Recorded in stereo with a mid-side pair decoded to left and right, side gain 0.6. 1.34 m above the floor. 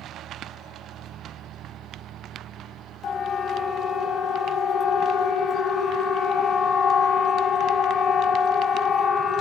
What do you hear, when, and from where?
3.0 s a siren: 50° left, 3 m